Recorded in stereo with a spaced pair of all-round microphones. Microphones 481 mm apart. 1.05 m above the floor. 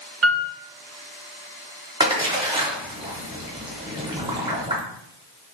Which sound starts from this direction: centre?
A splash, at 2.0 s.